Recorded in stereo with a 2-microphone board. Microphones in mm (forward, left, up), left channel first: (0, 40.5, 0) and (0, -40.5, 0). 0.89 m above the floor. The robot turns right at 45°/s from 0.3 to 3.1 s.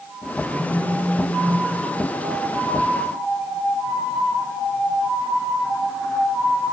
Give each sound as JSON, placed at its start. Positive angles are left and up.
{"t": 0.5, "sound": "a phone buzzing", "azimuth_deg": -155, "distance_m": 8.0}